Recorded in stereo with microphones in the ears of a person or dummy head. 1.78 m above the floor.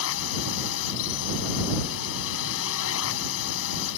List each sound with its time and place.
0.0 s a drone: 75° left (ahead or behind)